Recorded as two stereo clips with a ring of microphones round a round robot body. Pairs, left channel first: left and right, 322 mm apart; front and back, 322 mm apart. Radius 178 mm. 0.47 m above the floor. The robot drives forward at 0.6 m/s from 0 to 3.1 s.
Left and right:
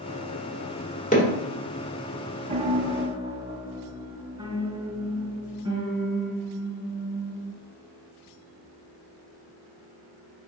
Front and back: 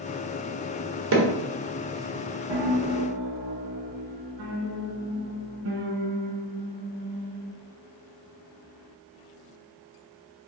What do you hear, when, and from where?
1.1 s hammering: 150° left, 1.4 m
2.5 s a piano: 160° right, 0.6 m; by 7.5 s 170° right, 0.9 m